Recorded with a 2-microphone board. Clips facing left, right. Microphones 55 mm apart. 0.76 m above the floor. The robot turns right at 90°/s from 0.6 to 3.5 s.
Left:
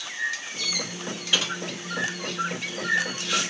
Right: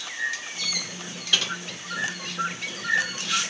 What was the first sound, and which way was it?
Typing on a keyboard, 15° left (ahead or behind).